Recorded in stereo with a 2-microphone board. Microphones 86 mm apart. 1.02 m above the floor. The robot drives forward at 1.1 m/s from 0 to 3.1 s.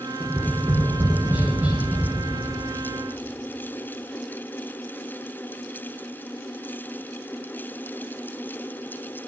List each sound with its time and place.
0.2 s tapping: 25° right (ahead or behind), 1.0 m; by 2.0 s 15° right (ahead or behind), 1.8 m